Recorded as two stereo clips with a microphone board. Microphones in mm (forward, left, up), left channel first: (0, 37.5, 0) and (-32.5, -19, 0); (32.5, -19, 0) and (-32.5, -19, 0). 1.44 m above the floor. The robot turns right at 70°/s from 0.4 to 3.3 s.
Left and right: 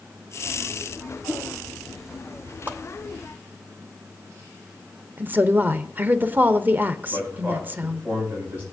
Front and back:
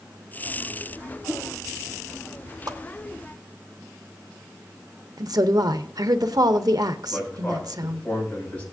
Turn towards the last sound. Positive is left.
turn(degrees=-60)